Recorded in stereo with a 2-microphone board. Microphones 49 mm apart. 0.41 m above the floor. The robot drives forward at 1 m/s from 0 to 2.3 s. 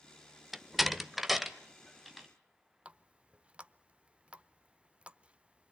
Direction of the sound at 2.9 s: 25° right (ahead or behind).